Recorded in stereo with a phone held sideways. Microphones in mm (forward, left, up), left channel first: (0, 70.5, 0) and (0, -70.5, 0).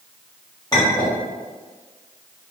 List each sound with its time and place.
0.7 s a clink: 30° left (ahead or behind), 1.2 m